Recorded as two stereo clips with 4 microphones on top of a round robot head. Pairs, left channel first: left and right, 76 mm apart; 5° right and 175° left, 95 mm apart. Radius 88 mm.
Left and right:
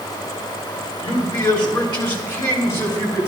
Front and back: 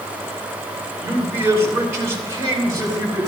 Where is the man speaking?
110° left, 3 m; by 3.3 s 125° left, 4 m.